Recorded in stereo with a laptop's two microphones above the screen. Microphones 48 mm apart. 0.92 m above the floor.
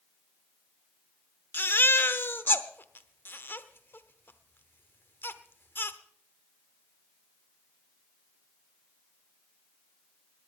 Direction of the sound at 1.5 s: 50° left (ahead or behind).